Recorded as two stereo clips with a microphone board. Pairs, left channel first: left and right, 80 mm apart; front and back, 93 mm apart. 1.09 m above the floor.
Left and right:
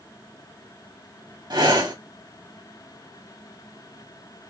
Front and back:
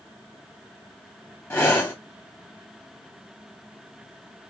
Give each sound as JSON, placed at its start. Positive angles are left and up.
{"t": 1.5, "sound": "breathing", "azimuth_deg": -65, "distance_m": 1.2}